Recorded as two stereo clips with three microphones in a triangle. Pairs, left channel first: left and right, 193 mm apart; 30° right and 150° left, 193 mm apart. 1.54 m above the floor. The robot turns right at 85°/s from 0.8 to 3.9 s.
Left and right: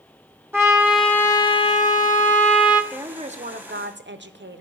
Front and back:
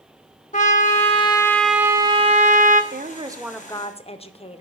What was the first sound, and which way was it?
A trumpet, 20° right.